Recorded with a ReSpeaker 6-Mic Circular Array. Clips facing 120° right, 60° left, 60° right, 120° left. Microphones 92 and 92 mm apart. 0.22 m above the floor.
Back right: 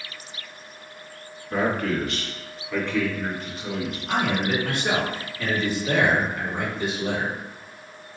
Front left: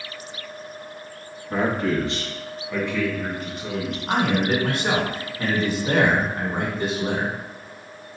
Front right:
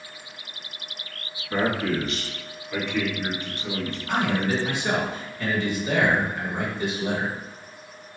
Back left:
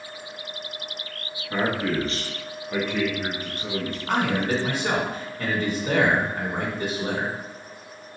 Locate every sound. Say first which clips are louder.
1.5 s a man speaking: front left 2 dB, even; 60° left, 1.2 m; by 4.0 s 155° left, 2.5 m
4.1 s a man speaking: front left 3 dB, back left 1 dB; 95° left, 1.6 m